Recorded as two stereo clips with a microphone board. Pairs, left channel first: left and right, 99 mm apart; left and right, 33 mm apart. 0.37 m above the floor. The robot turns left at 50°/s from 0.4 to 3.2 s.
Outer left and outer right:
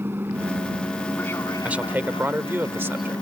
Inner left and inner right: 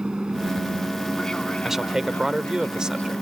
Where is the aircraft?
25° right (ahead or behind); by 3.2 s 40° left (ahead or behind).